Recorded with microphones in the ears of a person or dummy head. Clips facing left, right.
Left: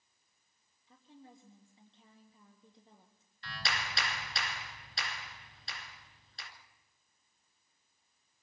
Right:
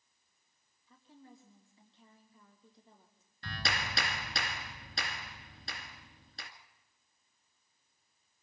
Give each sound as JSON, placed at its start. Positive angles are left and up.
{"t": 0.9, "sound": "a woman speaking", "side_deg": 20, "distance_m": 2.5}
{"t": 3.4, "sound": "a clap", "side_deg": -40, "distance_m": 1.9}